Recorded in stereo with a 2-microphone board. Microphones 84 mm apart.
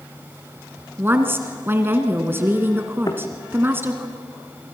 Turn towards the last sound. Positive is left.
turn(degrees=45)  # may be behind; listen again after turning